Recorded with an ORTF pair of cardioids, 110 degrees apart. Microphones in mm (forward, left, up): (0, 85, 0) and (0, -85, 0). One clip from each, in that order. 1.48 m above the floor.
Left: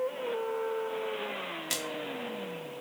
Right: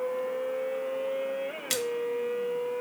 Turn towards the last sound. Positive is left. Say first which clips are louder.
# right 4 dB
turn(degrees=-15)